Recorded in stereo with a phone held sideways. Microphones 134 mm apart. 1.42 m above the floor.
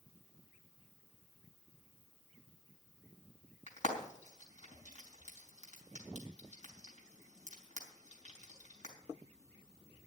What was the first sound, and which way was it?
Frying, 60° left (ahead or behind).